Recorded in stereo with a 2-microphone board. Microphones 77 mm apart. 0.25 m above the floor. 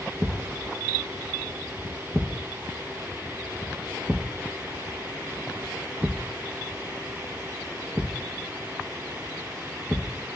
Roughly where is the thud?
Centre.